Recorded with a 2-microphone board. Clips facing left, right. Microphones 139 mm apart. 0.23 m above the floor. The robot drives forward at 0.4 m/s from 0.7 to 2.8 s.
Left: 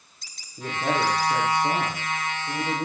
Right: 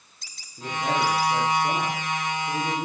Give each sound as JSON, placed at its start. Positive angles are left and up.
{"t": 0.6, "sound": "a man speaking", "side_deg": 15, "distance_m": 8.0}